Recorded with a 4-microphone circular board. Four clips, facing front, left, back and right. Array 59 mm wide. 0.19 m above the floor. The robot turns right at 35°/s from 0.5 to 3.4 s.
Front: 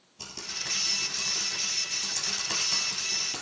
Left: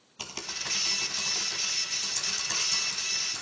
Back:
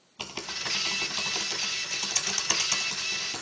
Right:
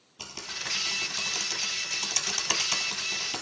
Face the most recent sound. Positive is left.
turn(degrees=-90)